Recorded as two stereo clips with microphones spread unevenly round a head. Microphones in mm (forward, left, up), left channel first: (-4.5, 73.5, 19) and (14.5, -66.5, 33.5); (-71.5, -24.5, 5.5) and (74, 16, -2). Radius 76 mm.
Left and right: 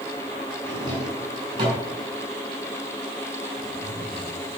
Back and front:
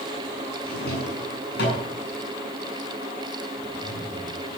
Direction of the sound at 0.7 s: 145° right.